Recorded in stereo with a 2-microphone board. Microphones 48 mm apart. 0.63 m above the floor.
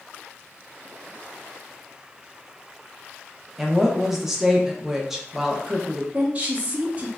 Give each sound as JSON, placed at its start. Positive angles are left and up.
{"t": 3.6, "sound": "a woman speaking", "side_deg": -5, "distance_m": 0.6}
{"t": 6.1, "sound": "a woman speaking", "side_deg": -30, "distance_m": 1.0}